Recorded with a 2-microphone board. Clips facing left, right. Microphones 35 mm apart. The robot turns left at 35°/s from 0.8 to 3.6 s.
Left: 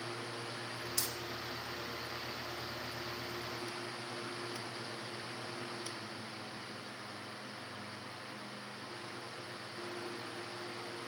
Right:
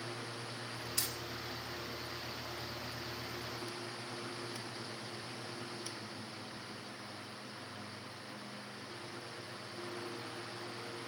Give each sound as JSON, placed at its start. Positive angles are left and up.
{"t": 1.0, "sound": "hammering", "side_deg": -30, "distance_m": 4.0}